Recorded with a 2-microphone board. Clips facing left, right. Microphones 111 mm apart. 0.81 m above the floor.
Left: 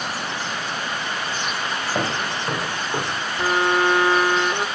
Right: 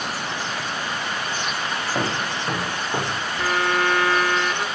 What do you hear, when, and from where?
1.9 s footsteps: 10° left (ahead or behind), 3 m; by 3.2 s 10° right (ahead or behind), 4 m
3.4 s a violin: 20° left (ahead or behind), 0.6 m